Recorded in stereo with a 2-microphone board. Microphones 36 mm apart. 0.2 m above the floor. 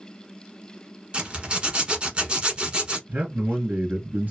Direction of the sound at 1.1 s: 30° right (ahead or behind).